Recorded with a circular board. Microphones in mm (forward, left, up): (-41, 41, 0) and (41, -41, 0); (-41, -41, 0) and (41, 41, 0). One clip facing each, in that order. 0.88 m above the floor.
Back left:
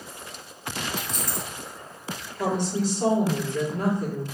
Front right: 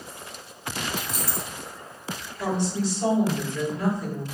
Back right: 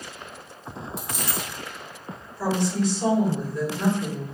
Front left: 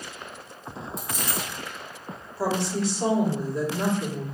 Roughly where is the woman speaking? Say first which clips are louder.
Back left 1 dB, back right 2 dB; left.